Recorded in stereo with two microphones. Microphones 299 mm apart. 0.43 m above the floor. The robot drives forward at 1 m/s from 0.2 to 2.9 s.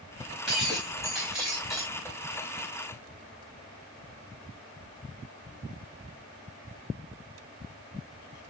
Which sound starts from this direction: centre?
Breaking glass, at 0.5 s.